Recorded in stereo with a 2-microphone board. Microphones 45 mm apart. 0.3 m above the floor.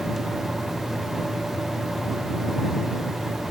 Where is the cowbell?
I don't hear a cowbell.